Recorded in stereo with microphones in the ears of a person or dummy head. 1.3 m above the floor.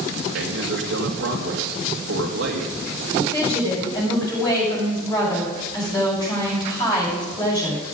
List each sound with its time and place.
0.3 s a man speaking: 60° right (ahead or behind), 2 m
3.1 s a woman speaking: 20° left (ahead or behind), 7 m